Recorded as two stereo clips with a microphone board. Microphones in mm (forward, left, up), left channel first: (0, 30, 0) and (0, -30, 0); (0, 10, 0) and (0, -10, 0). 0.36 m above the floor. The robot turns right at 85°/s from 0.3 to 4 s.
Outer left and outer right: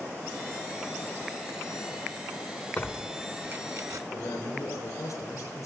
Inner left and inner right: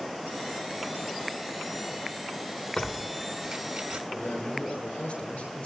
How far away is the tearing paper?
About 1.5 m.